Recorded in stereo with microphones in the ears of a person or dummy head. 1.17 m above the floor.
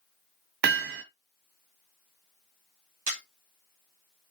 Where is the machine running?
I don't hear a machine running.